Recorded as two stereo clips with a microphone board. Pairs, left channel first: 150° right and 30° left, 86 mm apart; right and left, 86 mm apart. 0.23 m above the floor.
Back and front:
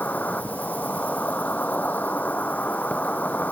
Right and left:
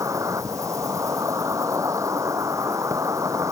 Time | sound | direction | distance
0.0 | an insect | 140° left | ?